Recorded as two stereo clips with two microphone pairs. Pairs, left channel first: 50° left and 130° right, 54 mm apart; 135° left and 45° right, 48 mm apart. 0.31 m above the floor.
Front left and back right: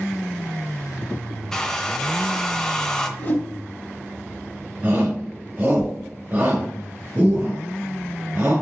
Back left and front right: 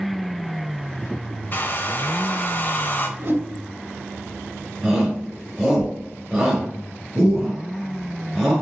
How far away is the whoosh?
About 1.3 m.